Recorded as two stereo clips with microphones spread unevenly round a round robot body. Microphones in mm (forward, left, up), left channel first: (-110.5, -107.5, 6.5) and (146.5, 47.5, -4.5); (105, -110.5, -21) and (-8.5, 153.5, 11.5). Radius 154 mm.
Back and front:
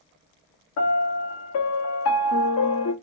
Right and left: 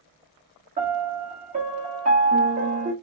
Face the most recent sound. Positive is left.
turn(degrees=180)